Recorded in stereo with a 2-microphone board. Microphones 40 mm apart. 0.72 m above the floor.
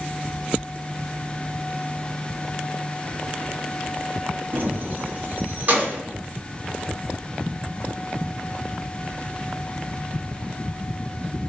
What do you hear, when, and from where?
4.5 s keys jangling: 50° right (ahead or behind), 0.6 m; by 6.0 s 40° right (ahead or behind), 1.4 m